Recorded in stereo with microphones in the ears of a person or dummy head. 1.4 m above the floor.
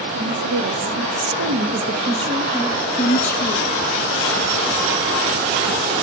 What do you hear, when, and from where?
0.1 s a woman speaking: 75° right (ahead or behind), 2 m; by 3.9 s 30° left (ahead or behind), 1.1 m